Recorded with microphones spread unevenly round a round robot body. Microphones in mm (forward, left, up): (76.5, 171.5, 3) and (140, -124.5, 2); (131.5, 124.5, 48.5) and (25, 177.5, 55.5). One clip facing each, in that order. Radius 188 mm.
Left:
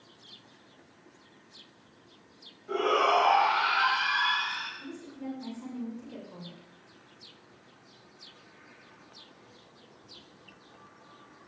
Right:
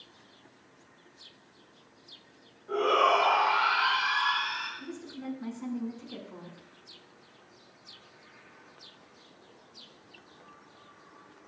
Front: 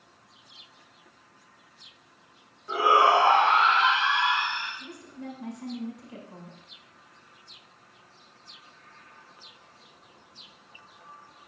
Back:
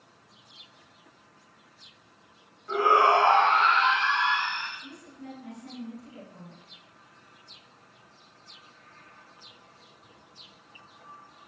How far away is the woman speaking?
About 8 m.